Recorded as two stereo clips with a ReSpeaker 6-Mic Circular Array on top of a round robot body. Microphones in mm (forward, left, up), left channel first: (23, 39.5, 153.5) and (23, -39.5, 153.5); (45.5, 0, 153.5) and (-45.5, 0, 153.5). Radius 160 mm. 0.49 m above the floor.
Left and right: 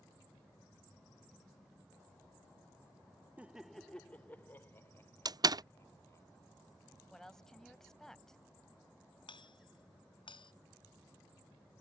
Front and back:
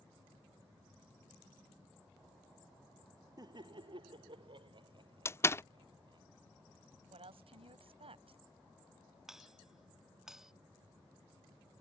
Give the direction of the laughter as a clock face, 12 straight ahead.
5 o'clock.